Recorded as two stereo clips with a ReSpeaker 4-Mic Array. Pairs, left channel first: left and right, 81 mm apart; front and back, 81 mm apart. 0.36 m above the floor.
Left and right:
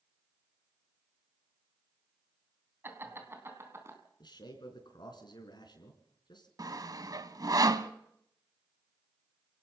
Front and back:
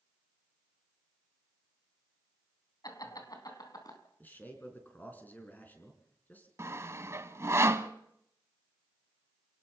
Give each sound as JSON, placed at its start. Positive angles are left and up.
{"t": 2.8, "sound": "laughter", "azimuth_deg": -30, "distance_m": 3.5}
{"t": 4.2, "sound": "a man speaking", "azimuth_deg": 70, "distance_m": 4.0}
{"t": 6.6, "sound": "sawing", "azimuth_deg": -125, "distance_m": 1.0}